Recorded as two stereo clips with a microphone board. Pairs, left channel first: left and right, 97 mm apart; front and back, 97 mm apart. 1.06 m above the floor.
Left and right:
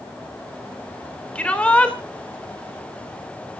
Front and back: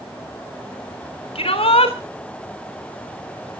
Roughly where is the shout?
Ahead.